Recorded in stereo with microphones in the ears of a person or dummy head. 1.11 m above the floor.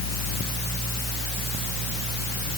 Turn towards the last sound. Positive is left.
No sound to turn to.